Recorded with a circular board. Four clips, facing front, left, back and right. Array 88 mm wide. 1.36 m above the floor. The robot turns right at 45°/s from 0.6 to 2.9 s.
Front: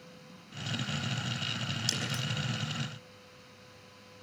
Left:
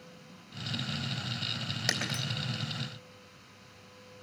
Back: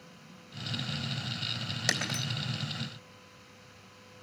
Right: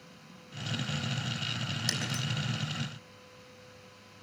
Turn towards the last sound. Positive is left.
turn(degrees=180)